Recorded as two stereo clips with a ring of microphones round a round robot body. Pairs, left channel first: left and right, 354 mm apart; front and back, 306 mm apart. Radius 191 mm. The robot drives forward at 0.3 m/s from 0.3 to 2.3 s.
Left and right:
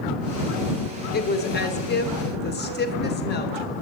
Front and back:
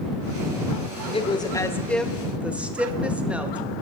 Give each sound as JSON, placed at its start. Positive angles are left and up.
{"t": 1.1, "sound": "a woman speaking", "azimuth_deg": 55, "distance_m": 1.1}